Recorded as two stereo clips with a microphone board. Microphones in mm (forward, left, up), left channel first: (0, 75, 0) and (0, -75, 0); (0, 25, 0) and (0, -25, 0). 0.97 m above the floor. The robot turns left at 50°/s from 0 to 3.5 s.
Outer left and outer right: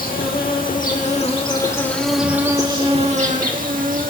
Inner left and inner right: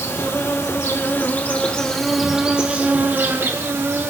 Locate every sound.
0.0 s an insect: 105° left, 1.6 m; by 4.1 s 70° right, 1.6 m